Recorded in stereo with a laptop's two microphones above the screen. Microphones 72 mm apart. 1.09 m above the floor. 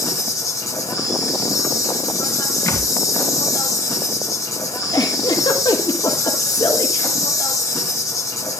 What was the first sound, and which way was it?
An insect, 50° left (ahead or behind).